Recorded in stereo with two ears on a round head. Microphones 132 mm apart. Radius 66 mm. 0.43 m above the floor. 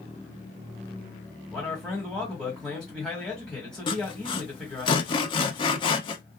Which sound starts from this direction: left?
Sawing, at 3.9 s.